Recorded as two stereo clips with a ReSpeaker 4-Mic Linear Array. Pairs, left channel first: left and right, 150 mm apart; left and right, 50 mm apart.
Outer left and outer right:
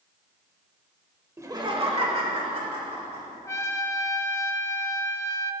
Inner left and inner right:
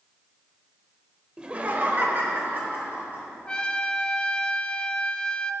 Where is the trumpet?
20° left (ahead or behind), 0.6 m.